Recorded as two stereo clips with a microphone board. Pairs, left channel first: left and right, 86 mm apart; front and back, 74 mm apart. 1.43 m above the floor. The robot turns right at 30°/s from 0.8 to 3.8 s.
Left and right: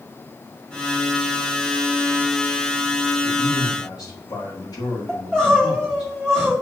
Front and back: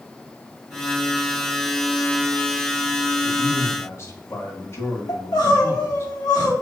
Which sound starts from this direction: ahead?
Crying, at 5.1 s.